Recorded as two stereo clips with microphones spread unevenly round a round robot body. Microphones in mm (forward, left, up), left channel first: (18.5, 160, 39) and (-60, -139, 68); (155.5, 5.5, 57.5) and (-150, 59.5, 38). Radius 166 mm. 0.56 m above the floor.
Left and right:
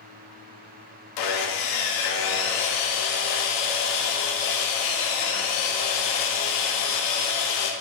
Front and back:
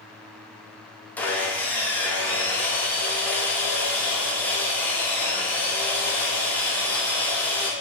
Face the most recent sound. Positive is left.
turn(degrees=75)